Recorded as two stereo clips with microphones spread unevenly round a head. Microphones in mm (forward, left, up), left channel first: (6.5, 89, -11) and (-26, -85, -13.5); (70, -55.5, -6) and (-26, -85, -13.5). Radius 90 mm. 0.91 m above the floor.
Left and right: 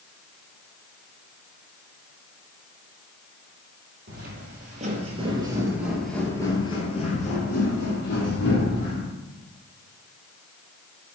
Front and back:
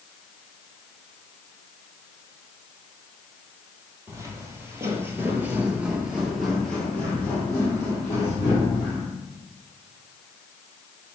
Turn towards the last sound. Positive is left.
turn(degrees=80)